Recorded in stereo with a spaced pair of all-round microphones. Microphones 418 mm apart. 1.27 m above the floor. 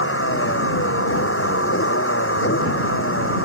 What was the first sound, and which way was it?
A vehicle, 30° left (ahead or behind).